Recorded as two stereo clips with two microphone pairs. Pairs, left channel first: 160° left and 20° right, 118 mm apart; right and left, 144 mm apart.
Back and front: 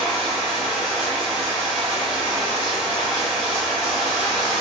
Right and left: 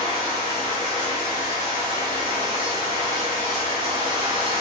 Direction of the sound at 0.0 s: 70° left.